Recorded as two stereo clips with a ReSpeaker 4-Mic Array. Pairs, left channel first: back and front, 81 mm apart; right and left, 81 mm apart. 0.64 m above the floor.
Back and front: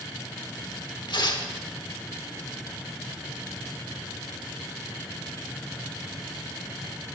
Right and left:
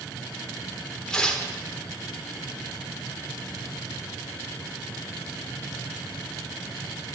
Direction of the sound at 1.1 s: 170° right.